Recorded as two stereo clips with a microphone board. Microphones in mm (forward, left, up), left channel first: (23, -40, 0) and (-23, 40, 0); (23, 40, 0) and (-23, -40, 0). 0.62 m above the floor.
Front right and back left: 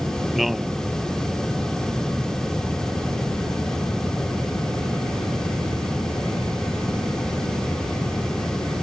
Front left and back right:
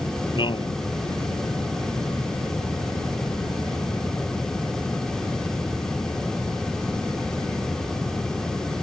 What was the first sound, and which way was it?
A man speaking, 30° left.